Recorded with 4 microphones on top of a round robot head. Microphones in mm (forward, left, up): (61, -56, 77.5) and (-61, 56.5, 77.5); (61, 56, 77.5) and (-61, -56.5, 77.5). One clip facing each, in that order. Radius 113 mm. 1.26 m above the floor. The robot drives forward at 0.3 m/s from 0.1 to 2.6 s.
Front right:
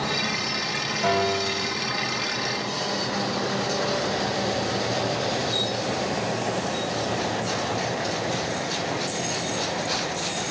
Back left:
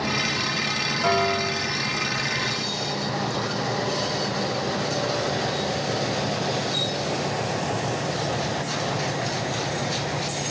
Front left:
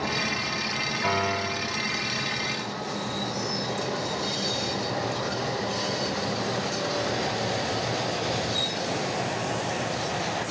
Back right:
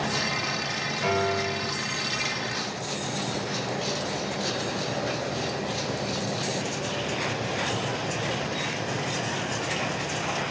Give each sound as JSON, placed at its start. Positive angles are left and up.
{"t": 1.0, "sound": "a piano", "azimuth_deg": -115, "distance_m": 1.9}